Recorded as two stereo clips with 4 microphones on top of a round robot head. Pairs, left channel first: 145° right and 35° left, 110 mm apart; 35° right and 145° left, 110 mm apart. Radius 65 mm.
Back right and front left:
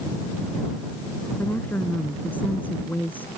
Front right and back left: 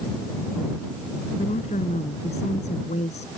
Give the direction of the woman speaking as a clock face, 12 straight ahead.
2 o'clock.